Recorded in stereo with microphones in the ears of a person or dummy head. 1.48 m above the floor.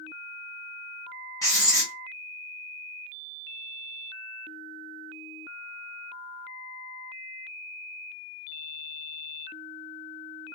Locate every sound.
1.4 s writing: 15° left (ahead or behind), 0.8 m